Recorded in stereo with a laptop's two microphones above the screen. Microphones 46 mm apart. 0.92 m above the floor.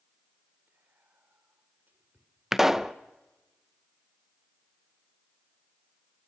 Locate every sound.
0.7 s whispering: 40° right (ahead or behind), 3.5 m
2.5 s a pop: 5° right (ahead or behind), 0.6 m